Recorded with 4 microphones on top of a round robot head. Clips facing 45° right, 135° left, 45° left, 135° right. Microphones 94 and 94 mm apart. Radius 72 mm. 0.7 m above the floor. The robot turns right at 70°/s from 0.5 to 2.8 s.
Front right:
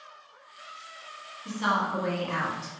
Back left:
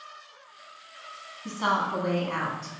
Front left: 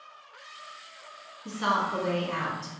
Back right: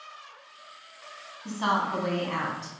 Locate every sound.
1.4 s a woman speaking: 170° left, 1.1 m; by 2.7 s 105° right, 1.1 m